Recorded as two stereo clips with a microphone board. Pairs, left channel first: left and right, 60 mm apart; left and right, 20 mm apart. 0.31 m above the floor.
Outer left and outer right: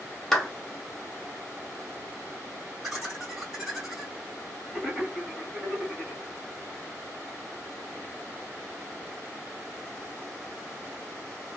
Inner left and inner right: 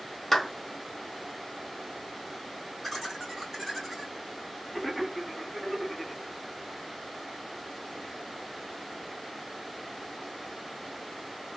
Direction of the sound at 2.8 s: 10° right (ahead or behind).